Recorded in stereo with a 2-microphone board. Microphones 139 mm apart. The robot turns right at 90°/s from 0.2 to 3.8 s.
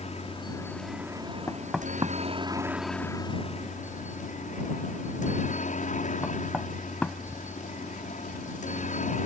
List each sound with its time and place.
0.0 s a helicopter: 120° left; by 9.3 s 85° left
1.5 s knocking: 20° left (ahead or behind); by 7.6 s 10° left (ahead or behind)